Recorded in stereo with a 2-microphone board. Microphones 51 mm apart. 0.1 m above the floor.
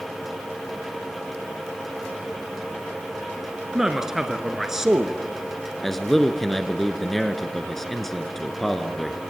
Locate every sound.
3.7 s a man speaking: 10° right (ahead or behind), 1.3 m
5.8 s a man speaking: 5° left (ahead or behind), 1.1 m